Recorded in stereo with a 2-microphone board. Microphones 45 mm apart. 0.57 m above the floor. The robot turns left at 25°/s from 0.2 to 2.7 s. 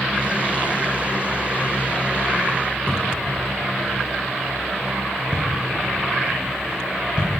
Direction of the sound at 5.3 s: 25° right (ahead or behind).